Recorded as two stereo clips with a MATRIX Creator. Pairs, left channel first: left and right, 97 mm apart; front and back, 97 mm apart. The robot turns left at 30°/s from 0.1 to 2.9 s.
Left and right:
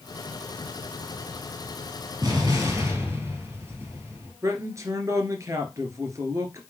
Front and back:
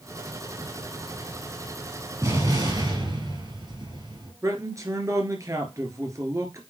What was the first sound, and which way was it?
An explosion, 130° right.